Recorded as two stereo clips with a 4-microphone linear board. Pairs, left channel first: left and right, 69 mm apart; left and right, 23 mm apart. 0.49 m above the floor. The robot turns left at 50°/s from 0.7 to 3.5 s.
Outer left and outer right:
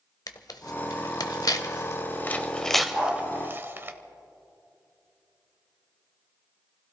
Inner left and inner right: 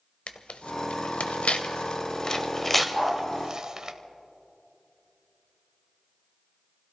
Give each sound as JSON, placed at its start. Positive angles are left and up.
{"t": 0.3, "sound": "tearing paper", "side_deg": 70, "distance_m": 0.9}
{"t": 2.9, "sound": "a dog barking", "side_deg": 20, "distance_m": 6.0}